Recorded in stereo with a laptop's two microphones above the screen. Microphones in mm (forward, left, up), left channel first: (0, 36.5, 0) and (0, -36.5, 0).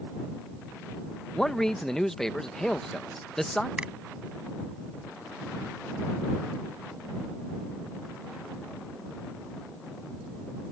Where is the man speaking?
5° left (ahead or behind).